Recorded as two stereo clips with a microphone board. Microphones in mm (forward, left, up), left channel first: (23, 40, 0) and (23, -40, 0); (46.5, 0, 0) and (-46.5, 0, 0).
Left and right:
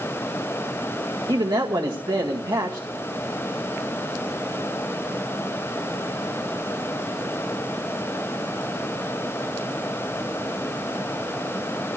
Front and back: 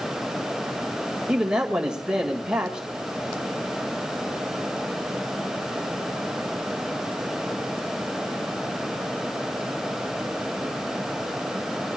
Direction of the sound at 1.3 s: 100° right.